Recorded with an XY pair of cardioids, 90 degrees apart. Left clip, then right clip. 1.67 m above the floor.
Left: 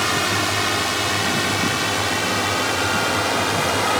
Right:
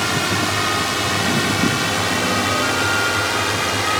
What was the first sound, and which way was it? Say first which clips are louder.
A drone: even; 10° right.